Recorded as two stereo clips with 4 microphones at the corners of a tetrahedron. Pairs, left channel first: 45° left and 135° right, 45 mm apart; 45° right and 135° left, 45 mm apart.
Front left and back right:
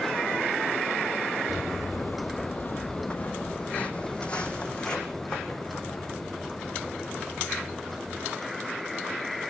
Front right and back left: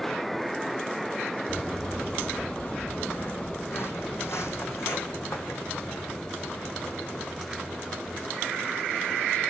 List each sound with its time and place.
1.5 s footsteps: 35° left, 1.5 m; by 8.2 s 40° right, 5.5 m